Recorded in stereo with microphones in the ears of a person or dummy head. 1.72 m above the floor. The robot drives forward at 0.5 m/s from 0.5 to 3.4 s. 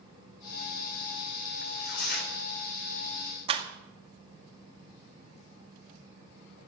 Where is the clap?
30° right (ahead or behind), 2 m.